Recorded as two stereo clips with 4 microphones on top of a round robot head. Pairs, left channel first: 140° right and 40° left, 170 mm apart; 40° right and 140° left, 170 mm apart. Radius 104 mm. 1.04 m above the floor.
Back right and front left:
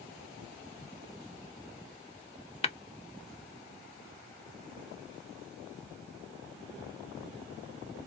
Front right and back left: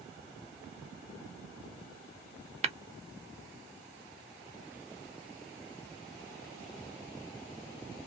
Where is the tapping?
Straight behind, 0.5 m.